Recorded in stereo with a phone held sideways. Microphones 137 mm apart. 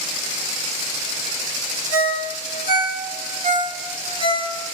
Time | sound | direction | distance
1.9 | a ringtone | 45° right (ahead or behind) | 1.4 m